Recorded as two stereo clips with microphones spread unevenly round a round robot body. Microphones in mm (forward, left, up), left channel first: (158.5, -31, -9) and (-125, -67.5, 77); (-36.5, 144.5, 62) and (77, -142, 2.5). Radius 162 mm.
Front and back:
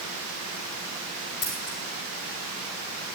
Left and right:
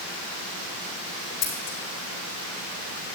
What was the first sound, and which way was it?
Scissors, 80° left.